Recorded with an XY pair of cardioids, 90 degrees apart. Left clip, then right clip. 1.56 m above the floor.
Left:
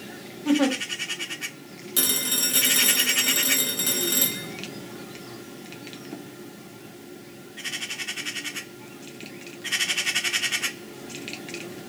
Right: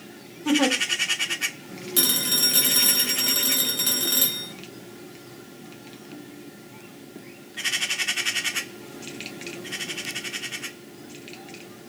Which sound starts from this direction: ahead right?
A giggle, at 0.5 s.